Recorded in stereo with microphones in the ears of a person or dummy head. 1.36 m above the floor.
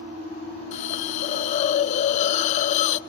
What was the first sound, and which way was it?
A hiss, 40° left (ahead or behind).